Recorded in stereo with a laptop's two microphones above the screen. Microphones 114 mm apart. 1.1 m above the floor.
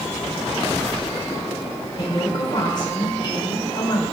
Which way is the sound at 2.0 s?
40° left (ahead or behind).